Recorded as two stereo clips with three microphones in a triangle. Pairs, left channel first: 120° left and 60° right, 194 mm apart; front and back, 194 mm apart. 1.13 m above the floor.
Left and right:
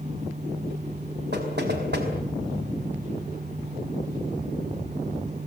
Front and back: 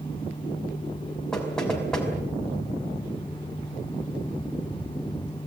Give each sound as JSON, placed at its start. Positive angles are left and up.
{"t": 1.3, "sound": "knocking", "azimuth_deg": -85, "distance_m": 5.0}